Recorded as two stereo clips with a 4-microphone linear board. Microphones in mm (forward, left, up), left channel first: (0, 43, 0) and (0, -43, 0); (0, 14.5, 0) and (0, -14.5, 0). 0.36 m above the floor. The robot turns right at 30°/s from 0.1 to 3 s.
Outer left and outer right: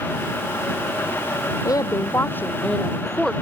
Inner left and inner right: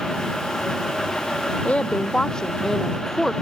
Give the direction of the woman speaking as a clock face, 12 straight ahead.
7 o'clock.